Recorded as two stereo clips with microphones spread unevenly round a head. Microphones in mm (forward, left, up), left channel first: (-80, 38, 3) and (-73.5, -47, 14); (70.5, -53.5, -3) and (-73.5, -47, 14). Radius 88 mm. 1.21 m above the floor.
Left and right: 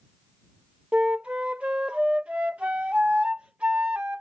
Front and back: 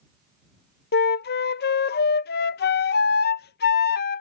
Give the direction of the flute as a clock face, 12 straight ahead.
12 o'clock.